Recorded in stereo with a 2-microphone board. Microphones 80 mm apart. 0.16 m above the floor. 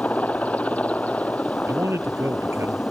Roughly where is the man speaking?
Right.